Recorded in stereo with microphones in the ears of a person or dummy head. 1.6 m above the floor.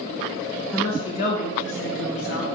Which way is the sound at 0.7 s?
15° left (ahead or behind).